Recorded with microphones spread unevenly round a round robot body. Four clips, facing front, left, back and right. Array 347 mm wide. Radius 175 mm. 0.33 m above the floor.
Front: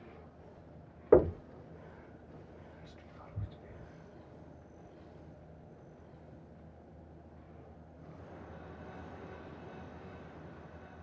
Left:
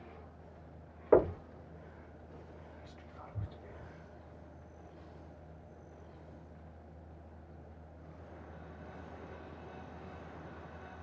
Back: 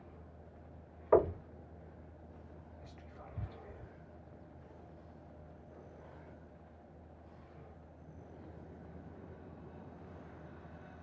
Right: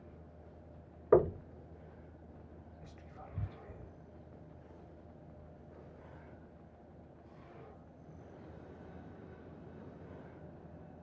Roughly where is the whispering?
Right.